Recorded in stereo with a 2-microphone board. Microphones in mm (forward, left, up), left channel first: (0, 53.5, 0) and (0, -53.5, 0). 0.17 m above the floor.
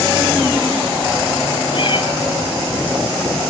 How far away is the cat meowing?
About 1.6 m.